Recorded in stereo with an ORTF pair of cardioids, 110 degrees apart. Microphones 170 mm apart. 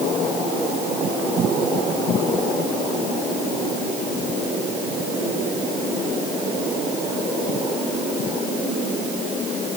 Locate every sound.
Only background noise.